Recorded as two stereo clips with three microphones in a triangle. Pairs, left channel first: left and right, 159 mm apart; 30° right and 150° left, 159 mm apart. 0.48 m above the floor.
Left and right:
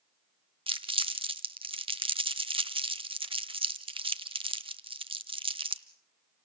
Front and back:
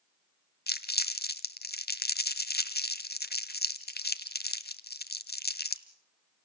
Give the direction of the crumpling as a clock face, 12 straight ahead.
1 o'clock.